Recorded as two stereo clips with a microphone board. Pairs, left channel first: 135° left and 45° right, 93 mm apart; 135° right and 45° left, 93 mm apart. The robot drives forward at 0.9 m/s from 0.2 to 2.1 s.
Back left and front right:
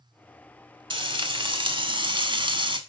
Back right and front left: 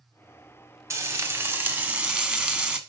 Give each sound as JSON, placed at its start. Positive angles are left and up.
{"t": 0.9, "sound": "frying", "azimuth_deg": -15, "distance_m": 2.0}